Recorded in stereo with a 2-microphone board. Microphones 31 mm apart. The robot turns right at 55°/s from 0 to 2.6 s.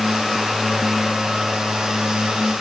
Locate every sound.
Only background noise.